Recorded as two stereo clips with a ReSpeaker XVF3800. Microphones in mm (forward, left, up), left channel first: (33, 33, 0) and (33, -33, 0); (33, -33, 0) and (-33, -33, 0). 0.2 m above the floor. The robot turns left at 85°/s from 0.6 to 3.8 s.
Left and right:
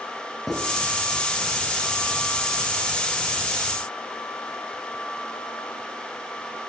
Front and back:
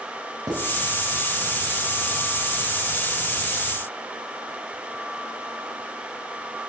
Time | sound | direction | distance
0.5 | writing | 175° right | 2.5 m